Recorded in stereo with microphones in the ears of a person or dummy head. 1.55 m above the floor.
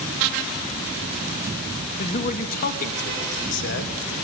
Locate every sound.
2.0 s a man speaking: 35° left (ahead or behind), 2.5 m; by 4.0 s 65° left (ahead or behind), 2.5 m